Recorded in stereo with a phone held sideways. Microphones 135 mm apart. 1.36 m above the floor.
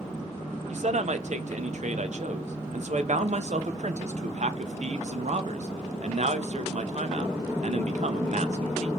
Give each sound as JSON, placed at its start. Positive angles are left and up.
{"t": 0.7, "sound": "a man speaking", "side_deg": -60, "distance_m": 0.8}